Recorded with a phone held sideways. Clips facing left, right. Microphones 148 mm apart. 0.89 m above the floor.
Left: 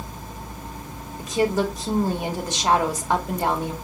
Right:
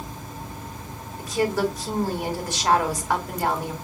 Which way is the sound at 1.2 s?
20° left (ahead or behind).